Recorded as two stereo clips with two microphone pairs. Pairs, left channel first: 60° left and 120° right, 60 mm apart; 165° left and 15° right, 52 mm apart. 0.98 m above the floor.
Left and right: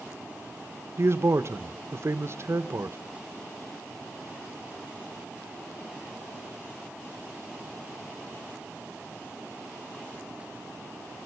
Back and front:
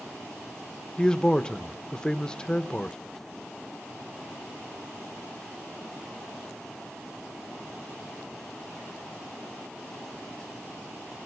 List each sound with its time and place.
1.0 s a man speaking: 125° right, 0.9 m